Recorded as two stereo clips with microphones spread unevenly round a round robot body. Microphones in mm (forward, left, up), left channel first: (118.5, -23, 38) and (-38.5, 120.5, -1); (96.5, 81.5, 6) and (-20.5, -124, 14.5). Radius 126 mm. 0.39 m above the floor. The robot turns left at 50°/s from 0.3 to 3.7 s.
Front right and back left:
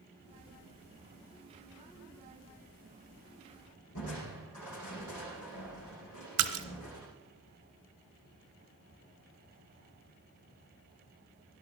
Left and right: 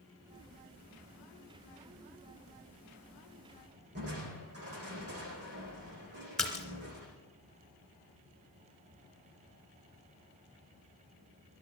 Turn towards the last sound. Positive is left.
turn(degrees=150)